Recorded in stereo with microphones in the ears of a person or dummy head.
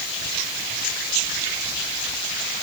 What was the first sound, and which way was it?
Only background noise.